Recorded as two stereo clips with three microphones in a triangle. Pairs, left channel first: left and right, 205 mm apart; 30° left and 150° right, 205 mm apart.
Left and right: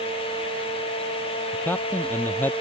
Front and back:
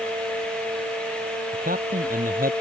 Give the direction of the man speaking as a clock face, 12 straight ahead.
6 o'clock.